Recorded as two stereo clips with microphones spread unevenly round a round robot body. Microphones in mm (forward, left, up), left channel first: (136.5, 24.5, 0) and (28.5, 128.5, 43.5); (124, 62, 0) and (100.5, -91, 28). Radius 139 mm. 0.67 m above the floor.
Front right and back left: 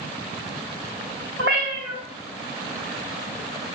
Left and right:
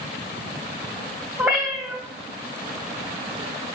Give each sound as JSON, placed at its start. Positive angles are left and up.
{"t": 1.4, "sound": "a cat meowing", "azimuth_deg": 175, "distance_m": 0.7}